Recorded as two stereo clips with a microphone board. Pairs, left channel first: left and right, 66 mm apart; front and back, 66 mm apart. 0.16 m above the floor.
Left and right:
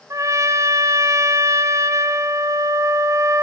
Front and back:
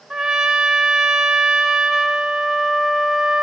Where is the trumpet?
105° right, 1.3 m.